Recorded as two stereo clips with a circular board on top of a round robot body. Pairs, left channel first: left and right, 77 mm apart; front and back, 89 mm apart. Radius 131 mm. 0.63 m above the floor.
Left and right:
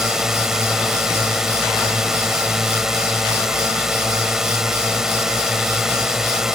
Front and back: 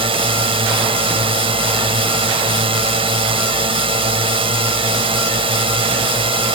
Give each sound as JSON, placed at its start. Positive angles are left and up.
{"t": 0.0, "sound": "a drone", "azimuth_deg": -175}